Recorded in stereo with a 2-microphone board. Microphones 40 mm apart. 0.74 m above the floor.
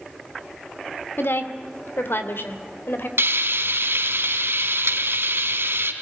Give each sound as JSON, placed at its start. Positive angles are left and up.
{"t": 1.2, "sound": "a woman speaking", "side_deg": 70, "distance_m": 2.0}
{"t": 3.2, "sound": "frying", "side_deg": -85, "distance_m": 3.0}